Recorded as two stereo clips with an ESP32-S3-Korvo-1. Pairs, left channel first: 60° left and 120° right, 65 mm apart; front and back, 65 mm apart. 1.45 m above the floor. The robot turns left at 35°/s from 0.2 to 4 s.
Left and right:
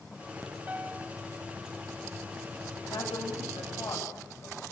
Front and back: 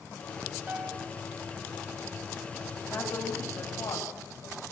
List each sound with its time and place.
0.7 s a piano: 155° right, 0.9 m; by 1.1 s 170° right, 0.9 m
2.8 s a woman speaking: 60° left, 7.5 m; by 4.6 s 15° left, 7.5 m